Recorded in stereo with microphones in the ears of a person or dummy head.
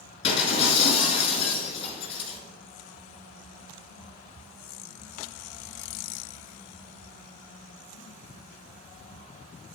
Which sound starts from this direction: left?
Breaking glass, at 0.2 s.